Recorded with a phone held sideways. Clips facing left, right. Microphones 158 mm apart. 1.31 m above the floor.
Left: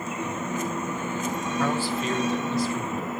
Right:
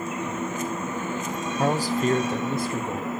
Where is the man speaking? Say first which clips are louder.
Right 4 dB; 35° right (ahead or behind), 1.2 m; by 3.1 s 60° right (ahead or behind), 2.5 m.